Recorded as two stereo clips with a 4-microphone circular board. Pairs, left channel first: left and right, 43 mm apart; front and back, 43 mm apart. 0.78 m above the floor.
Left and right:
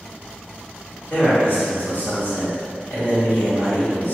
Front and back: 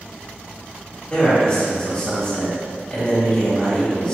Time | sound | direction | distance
1.1 | a man speaking | 60° left | 1.9 m